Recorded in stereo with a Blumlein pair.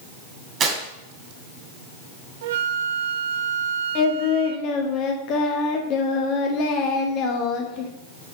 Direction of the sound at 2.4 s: 55° right.